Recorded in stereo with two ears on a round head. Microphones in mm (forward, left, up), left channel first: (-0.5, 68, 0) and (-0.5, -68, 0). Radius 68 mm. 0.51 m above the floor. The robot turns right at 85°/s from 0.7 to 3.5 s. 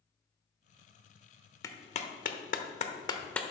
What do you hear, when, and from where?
1.6 s a clap: 20° left (ahead or behind), 1.0 m; by 3.4 s 5° left (ahead or behind), 1.0 m